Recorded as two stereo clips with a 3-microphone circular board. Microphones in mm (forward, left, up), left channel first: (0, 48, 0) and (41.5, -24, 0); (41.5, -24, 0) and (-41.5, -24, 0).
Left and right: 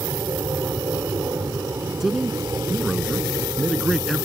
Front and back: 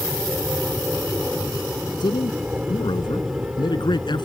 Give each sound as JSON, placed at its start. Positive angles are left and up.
{"t": 0.0, "sound": "an aircraft", "azimuth_deg": -105}
{"t": 2.0, "sound": "a man speaking", "azimuth_deg": 25}